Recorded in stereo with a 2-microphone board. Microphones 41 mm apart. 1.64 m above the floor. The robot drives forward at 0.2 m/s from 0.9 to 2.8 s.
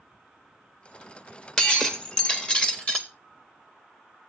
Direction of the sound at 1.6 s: 20° left (ahead or behind).